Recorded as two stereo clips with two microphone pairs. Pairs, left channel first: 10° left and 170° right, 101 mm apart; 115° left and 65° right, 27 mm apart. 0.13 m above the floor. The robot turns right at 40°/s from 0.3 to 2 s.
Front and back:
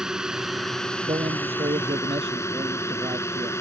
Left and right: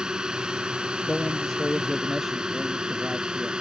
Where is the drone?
90° right; by 3.6 s 30° right.